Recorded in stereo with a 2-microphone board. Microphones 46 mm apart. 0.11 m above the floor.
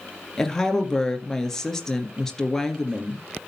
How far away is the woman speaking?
About 2 m.